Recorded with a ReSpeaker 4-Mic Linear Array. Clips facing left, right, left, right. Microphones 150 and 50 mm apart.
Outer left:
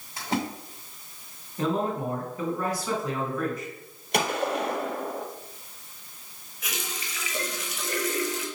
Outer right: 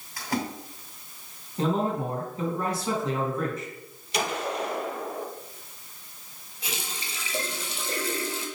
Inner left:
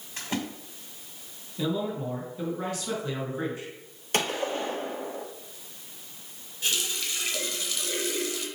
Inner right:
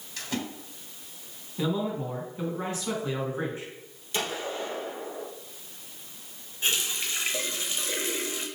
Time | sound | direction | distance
0.2 | a splash | 25° left (ahead or behind) | 2.5 m
1.6 | a man speaking | 25° right (ahead or behind) | 3 m
4.1 | a gunshot | 55° left (ahead or behind) | 1.6 m
6.6 | a running tap | 30° right (ahead or behind) | 1.2 m